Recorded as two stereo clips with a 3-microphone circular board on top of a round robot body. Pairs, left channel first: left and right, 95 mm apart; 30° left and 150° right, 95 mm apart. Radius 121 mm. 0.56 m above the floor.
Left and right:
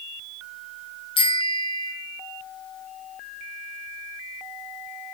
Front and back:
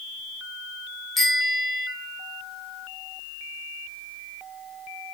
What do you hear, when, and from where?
1.2 s a bicycle bell: 120° left, 4.5 m